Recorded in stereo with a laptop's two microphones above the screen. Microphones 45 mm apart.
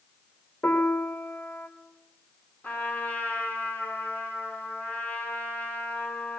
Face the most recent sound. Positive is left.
turn(degrees=40)  # may be behind; listen again after turning